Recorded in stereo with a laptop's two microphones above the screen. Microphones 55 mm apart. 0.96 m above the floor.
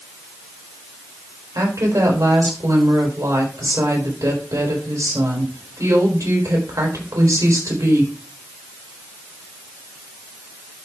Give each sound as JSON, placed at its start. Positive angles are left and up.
{"t": 1.6, "sound": "a woman speaking", "side_deg": -70, "distance_m": 3.5}